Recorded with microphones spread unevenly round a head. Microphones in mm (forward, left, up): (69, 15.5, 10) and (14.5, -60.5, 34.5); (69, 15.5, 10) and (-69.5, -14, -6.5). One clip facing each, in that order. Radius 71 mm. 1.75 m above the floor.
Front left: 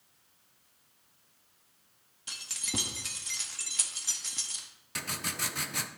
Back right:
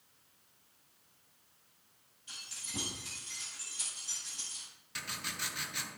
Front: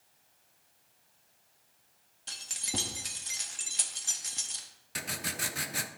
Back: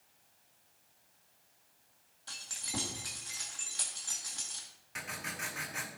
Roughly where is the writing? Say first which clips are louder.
Front left 5 dB, front 4 dB; ahead.